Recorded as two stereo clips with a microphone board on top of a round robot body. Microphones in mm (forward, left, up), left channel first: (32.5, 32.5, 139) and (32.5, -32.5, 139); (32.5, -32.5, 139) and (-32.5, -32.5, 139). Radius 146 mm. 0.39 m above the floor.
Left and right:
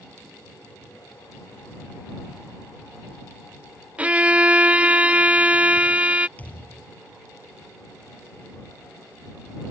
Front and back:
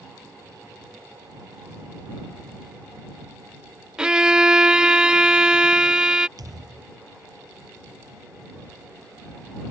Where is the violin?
125° right.